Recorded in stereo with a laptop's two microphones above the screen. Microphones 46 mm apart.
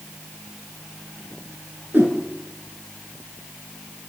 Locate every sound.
1.9 s a whoosh: 40° right (ahead or behind), 5 m